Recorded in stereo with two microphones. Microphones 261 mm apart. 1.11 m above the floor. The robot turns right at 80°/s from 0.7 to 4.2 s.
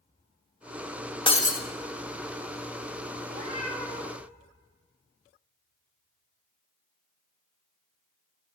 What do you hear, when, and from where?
1.3 s breaking glass: 20° left (ahead or behind), 0.6 m; by 1.6 s 35° left (ahead or behind), 0.6 m
3.2 s a cat meowing: 50° right, 1.7 m; by 4.2 s 30° left, 1.7 m